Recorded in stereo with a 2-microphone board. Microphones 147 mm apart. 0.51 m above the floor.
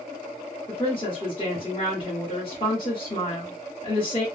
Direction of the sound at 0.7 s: 35° left (ahead or behind).